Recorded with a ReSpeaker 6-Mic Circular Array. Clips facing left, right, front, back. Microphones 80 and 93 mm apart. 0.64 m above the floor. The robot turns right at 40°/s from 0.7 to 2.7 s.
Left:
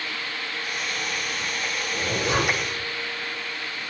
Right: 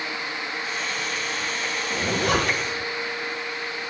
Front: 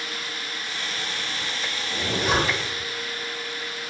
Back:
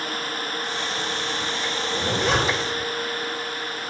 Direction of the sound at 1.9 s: 95° right.